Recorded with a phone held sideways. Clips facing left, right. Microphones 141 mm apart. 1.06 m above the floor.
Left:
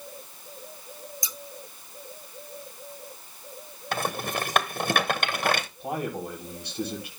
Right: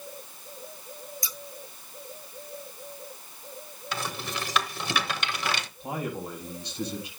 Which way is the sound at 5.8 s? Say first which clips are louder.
Left 2 dB; 60° left (ahead or behind).